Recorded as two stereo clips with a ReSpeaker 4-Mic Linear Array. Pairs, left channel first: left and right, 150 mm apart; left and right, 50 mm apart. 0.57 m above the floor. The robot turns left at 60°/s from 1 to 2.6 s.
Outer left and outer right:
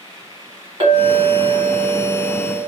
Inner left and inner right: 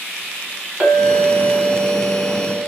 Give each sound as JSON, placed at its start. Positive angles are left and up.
{"t": 0.8, "sound": "a clink", "azimuth_deg": -140, "distance_m": 1.6}